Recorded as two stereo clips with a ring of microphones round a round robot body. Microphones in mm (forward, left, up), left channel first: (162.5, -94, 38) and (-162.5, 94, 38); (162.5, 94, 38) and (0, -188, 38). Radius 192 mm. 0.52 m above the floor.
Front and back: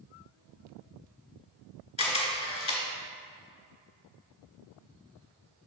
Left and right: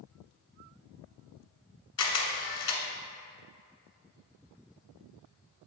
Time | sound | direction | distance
2.0 | a camera shutter | 45° left | 1.5 m